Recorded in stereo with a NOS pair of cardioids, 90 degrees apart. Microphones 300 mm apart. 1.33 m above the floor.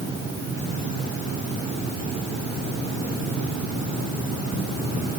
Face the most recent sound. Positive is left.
No sound to turn to.